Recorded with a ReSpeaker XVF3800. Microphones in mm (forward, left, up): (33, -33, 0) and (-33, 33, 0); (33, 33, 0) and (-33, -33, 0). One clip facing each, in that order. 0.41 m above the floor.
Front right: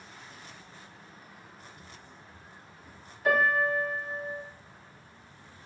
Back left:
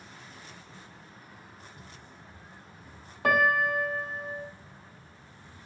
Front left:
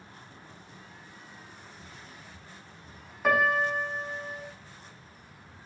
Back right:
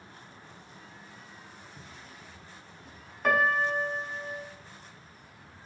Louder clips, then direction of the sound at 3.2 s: Back left 1 dB, front left 1 dB; 130° left.